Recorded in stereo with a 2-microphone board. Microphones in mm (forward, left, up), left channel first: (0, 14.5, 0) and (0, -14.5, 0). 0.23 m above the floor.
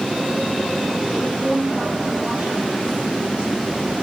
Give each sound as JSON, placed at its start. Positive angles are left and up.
{"t": 1.1, "sound": "a woman speaking", "side_deg": -55, "distance_m": 8.0}